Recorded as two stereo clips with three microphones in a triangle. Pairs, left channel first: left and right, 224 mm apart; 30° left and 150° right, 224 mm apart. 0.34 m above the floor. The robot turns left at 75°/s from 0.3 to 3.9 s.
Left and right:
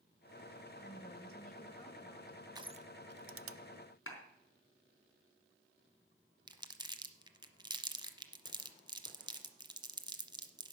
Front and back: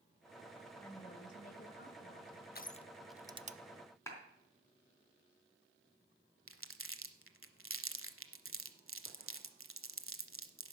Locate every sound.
0.8 s a woman speaking: 105° left, 1.5 m; by 2.5 s 15° right, 1.5 m
2.5 s crushing: 20° right, 0.5 m; by 3.6 s 95° right, 0.5 m
4.1 s a clap: 105° left, 3.5 m
6.5 s crumpling: 160° right, 1.0 m